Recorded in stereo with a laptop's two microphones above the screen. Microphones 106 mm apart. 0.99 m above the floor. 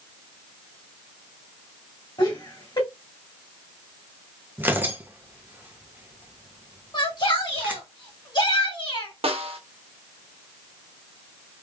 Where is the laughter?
40° left (ahead or behind), 2 m.